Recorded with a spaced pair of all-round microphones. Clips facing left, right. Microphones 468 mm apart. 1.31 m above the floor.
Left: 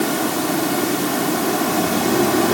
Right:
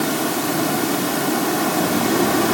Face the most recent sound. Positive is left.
No sound to turn to.